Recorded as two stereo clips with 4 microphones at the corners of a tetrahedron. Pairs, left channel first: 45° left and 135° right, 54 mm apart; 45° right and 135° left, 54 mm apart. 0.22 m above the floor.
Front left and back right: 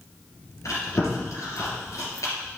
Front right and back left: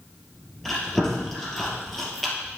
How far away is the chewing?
About 2.5 m.